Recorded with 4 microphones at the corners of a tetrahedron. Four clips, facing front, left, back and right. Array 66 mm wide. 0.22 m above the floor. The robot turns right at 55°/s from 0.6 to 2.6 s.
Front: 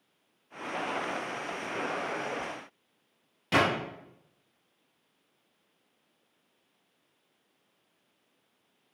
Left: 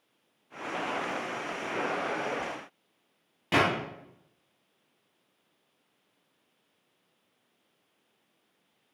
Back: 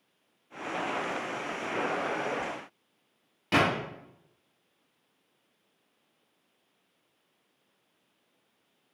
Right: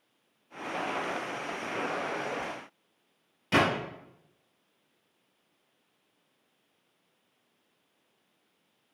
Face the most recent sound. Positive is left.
turn(degrees=110)